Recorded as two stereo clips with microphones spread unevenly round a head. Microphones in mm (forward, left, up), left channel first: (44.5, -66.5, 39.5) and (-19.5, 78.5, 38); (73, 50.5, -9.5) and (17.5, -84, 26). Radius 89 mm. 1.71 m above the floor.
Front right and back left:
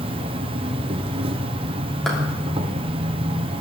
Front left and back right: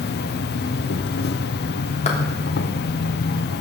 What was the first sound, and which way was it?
An insect, 55° left.